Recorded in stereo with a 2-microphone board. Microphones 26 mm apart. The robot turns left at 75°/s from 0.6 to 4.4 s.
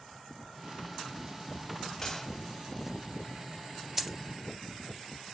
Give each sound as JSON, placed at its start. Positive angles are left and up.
{"t": 2.0, "sound": "a gunshot", "side_deg": 20, "distance_m": 0.7}
{"t": 4.0, "sound": "a dropped coin", "side_deg": -10, "distance_m": 0.6}